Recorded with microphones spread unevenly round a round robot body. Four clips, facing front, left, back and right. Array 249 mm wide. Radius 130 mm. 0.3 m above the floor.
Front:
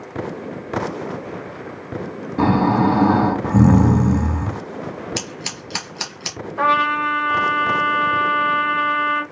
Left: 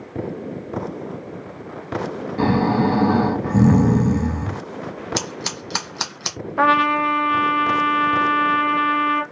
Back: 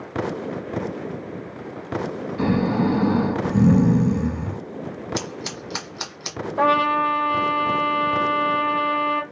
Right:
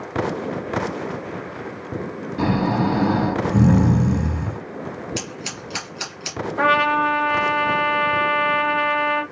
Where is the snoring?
10° left, 1.4 m.